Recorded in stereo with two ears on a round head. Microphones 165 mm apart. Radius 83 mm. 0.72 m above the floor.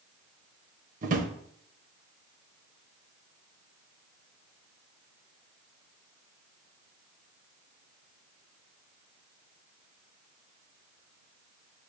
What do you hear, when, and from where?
1.0 s a drawer: 45° right (ahead or behind), 0.6 m